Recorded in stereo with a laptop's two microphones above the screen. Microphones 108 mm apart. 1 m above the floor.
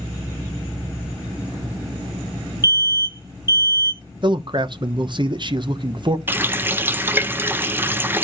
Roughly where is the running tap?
Centre.